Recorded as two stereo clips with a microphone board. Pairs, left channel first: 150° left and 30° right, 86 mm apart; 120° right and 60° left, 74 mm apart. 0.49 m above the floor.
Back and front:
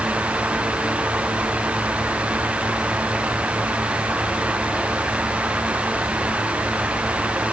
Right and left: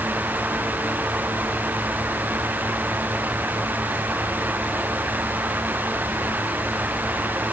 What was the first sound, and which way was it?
Only background noise.